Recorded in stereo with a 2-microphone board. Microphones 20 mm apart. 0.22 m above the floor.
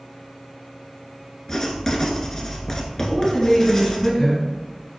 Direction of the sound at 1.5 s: 20° left (ahead or behind).